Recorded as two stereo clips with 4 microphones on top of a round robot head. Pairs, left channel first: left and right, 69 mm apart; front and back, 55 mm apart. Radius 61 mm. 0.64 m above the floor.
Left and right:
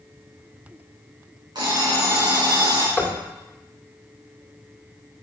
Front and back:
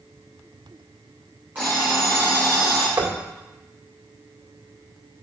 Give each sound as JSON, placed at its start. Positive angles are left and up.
{"t": 1.6, "sound": "an alarm clock", "azimuth_deg": -115, "distance_m": 3.5}
{"t": 3.0, "sound": "knocking", "azimuth_deg": 175, "distance_m": 1.7}